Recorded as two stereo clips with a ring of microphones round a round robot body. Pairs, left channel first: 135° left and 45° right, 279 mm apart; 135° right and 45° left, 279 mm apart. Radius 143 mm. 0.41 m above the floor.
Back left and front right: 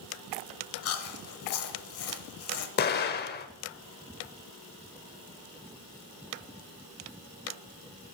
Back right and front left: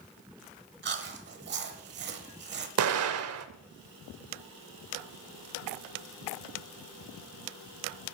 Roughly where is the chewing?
Left.